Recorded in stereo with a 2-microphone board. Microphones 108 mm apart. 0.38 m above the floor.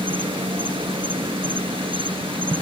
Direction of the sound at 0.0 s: 55° right (ahead or behind).